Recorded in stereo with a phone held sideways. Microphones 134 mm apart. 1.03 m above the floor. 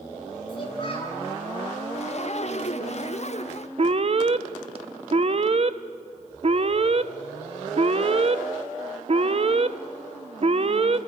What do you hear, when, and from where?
0.5 s a child speaking: 40° left (ahead or behind), 5.5 m
1.9 s a zipper: 55° left (ahead or behind), 0.6 m
3.8 s an alarm: 45° right (ahead or behind), 0.8 m